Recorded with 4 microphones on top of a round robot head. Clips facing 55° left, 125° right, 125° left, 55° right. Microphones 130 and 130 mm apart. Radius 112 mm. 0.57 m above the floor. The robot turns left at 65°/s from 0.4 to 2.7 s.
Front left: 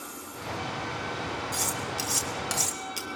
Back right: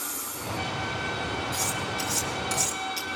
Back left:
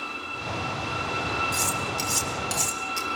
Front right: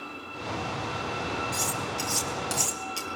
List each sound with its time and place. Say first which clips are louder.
1.5 s cutlery clinking: back right 1 dB, back left 2 dB; 95° left, 3.5 m; by 3.1 s 20° left, 3.5 m